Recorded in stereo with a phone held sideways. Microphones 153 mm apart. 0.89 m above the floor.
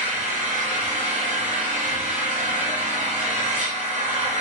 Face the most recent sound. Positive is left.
turn(degrees=-55)  # may be behind; listen again after turning